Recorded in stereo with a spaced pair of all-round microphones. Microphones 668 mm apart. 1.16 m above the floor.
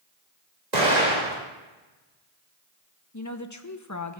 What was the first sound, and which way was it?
An explosion, 80° right.